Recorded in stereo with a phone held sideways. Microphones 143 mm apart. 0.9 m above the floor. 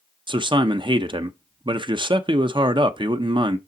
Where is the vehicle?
I don't hear a vehicle.